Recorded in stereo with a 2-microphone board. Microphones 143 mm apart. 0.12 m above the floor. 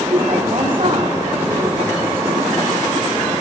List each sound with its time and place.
0.1 s a woman speaking: 40° right (ahead or behind), 8.5 m